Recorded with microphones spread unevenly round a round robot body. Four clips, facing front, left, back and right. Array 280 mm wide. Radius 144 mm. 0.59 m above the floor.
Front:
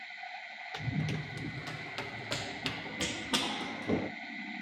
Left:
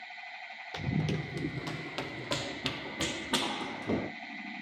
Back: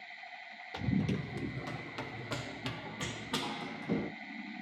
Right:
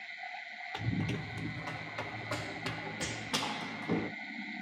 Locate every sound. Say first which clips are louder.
0.7 s running footsteps: left 3 dB, back 4 dB; 125° left, 1.3 m; by 4.1 s 35° left, 1.5 m